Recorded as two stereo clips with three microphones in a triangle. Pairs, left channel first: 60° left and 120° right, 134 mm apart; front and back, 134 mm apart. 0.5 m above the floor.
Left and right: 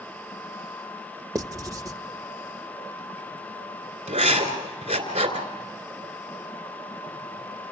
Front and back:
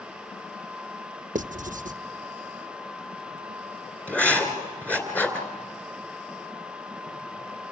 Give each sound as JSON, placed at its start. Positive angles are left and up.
{"t": 1.4, "sound": "writing", "azimuth_deg": 180, "distance_m": 0.6}
{"t": 4.1, "sound": "writing", "azimuth_deg": -80, "distance_m": 2.5}